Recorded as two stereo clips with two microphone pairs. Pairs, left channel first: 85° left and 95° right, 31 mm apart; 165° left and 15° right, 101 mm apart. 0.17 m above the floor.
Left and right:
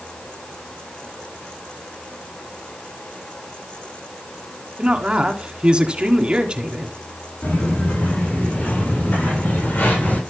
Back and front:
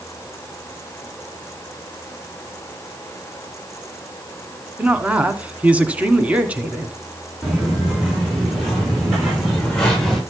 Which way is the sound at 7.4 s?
80° left.